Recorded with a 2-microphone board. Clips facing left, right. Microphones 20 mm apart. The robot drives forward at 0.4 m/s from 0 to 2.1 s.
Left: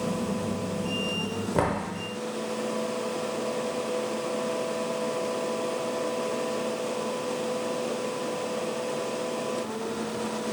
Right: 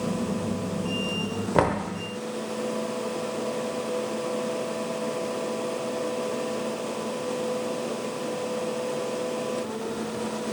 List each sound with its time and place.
1.6 s knocking: 25° right (ahead or behind), 0.8 m; by 1.9 s 20° right (ahead or behind), 0.9 m